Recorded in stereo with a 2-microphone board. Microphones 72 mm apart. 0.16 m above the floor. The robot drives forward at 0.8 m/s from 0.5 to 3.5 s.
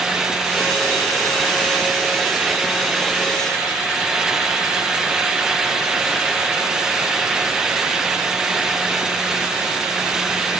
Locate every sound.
Only background noise.